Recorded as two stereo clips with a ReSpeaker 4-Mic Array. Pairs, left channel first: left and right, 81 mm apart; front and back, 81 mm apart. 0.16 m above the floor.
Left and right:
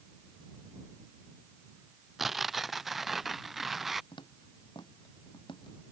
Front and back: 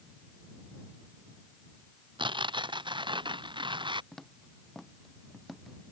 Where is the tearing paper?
175° right.